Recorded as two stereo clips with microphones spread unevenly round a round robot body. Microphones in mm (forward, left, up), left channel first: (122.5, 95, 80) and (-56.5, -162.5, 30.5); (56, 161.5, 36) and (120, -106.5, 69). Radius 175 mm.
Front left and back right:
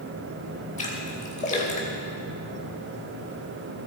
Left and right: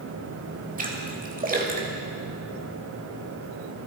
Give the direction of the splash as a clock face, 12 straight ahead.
12 o'clock.